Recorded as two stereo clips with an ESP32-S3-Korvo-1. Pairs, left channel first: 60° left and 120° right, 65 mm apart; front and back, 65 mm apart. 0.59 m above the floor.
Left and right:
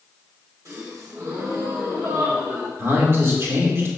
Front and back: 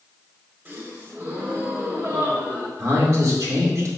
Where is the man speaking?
160° right, 1.7 m.